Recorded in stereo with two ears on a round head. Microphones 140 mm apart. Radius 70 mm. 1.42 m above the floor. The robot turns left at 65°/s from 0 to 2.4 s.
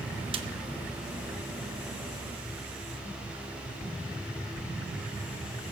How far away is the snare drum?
About 1.0 m.